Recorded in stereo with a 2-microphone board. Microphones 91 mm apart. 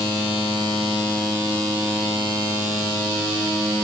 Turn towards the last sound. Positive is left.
No sound to turn to.